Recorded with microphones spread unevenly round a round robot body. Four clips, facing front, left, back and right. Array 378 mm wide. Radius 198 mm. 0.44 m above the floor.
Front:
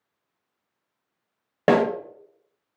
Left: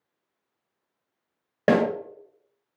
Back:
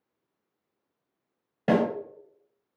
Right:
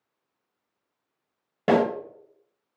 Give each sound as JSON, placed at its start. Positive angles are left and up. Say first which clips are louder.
{"t": 1.7, "sound": "a snare drum", "louder": "even, front 5 dB", "azimuth_deg": 40, "distance_m": 1.0}